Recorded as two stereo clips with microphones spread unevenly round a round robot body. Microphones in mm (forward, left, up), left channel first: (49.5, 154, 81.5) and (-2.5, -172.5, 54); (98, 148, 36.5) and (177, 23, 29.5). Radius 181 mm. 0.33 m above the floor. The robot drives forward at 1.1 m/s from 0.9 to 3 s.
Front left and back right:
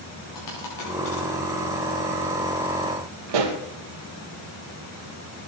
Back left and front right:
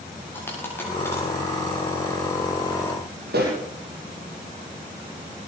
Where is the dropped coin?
45° left, 8.5 m; by 1.3 s 50° left, 8.5 m.